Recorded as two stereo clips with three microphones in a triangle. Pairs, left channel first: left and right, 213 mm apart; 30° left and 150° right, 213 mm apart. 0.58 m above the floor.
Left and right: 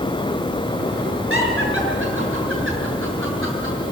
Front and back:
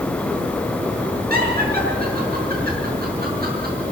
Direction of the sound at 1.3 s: 105° right.